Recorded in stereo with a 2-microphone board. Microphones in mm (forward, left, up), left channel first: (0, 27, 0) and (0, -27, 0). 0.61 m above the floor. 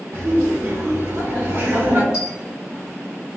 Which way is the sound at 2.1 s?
15° right (ahead or behind).